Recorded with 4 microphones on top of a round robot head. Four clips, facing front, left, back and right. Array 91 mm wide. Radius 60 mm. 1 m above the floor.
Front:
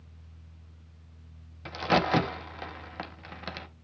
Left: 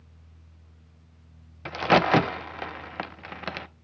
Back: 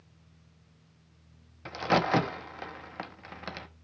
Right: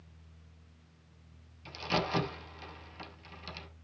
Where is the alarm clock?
I don't hear an alarm clock.